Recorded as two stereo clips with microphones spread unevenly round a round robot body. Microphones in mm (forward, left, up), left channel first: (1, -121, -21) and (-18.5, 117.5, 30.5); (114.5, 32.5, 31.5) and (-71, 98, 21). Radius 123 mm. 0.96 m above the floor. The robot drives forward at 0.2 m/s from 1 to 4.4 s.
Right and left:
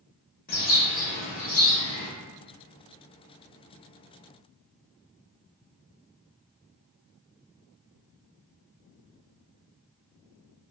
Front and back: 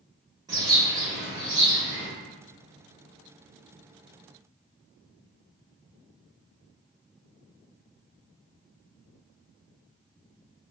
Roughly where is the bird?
Behind right.